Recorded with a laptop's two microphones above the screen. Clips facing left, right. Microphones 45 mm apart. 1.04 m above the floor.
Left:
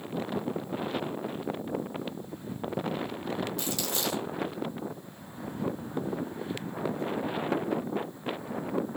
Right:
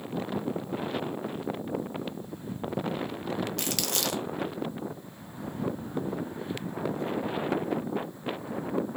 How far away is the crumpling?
About 1.1 m.